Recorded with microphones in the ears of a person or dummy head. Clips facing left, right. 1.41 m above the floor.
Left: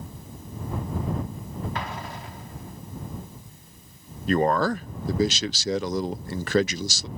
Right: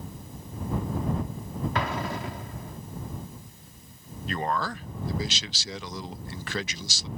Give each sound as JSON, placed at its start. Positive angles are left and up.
{"t": 1.8, "sound": "an explosion", "side_deg": -55}
{"t": 4.3, "sound": "a man speaking", "side_deg": 40}